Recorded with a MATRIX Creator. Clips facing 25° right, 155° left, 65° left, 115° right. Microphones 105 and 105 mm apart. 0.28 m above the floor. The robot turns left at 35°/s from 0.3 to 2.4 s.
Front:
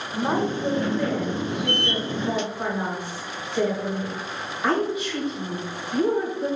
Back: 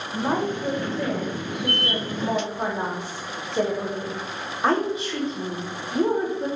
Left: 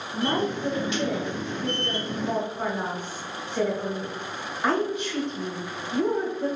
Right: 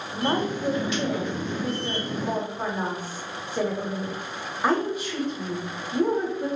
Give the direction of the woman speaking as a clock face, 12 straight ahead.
4 o'clock.